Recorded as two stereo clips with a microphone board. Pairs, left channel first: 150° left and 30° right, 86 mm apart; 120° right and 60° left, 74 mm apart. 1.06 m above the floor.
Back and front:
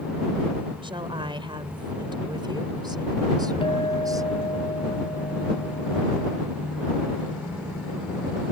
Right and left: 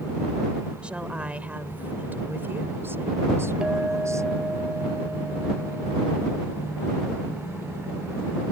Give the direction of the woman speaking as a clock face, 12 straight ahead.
12 o'clock.